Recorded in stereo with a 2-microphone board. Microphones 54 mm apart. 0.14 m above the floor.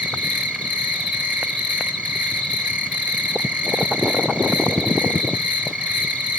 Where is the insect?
30° right (ahead or behind), 1.0 m.